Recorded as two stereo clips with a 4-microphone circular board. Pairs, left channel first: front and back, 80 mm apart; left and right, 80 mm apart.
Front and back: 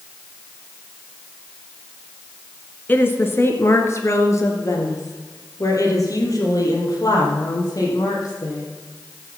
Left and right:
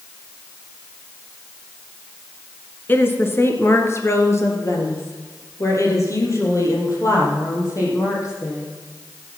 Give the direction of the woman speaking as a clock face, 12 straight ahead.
10 o'clock.